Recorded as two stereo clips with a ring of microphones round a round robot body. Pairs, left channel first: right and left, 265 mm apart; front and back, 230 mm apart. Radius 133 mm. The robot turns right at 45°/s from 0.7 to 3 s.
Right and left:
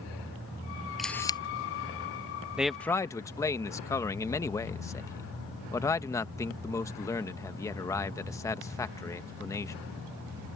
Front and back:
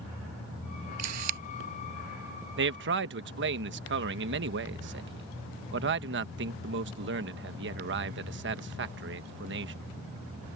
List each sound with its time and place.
1.0 s a camera shutter: straight behind; by 1.4 s 160° right
2.6 s a man speaking: 175° left; by 9.7 s 165° right